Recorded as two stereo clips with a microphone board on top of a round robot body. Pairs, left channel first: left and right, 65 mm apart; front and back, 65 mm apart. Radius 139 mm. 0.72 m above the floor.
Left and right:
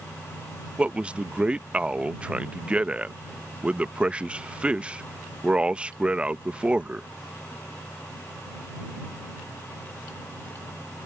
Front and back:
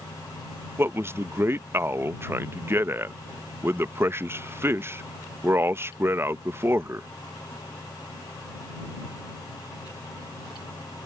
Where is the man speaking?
155° right.